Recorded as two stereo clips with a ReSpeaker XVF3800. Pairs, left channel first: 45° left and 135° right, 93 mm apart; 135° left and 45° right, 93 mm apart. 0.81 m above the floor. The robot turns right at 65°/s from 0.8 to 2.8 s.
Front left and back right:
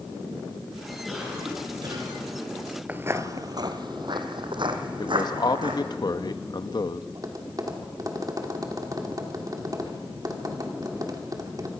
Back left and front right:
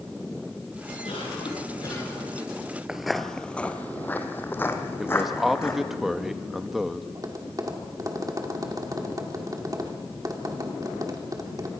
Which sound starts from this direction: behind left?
A cough, at 1.1 s.